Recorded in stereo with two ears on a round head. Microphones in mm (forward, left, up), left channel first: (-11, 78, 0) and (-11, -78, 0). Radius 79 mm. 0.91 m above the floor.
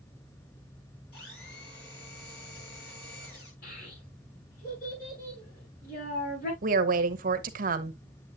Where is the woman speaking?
50° right (ahead or behind), 1.1 m.